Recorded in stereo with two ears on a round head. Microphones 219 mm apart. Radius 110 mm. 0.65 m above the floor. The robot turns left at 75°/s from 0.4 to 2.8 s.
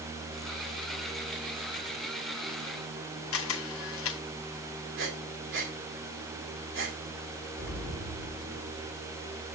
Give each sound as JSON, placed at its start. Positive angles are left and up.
{"t": 3.3, "sound": "a camera shutter", "side_deg": 55, "distance_m": 0.9}
{"t": 5.0, "sound": "breathing", "side_deg": -50, "distance_m": 1.7}
{"t": 7.6, "sound": "an explosion", "side_deg": 60, "distance_m": 1.4}